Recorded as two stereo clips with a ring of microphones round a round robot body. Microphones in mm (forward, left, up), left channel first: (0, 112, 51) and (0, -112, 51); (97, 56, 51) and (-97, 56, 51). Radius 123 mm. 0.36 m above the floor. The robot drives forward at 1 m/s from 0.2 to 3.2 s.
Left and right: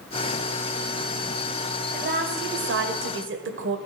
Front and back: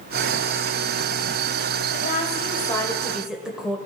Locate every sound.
1.9 s a woman speaking: 45° right, 1.8 m; by 3.8 s 95° right, 1.4 m